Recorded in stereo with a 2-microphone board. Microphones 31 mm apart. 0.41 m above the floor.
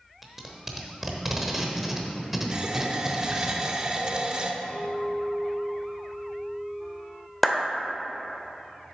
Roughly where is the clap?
Centre.